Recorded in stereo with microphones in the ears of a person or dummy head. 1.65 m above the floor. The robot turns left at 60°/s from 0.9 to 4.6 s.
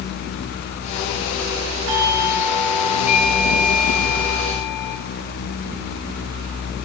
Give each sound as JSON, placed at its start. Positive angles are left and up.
{"t": 1.9, "sound": "a doorbell", "azimuth_deg": -100, "distance_m": 4.0}